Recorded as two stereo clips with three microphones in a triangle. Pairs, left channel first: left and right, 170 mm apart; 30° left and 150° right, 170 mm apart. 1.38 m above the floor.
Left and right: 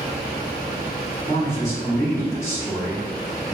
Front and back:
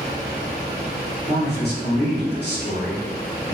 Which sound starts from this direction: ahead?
A man speaking, at 1.3 s.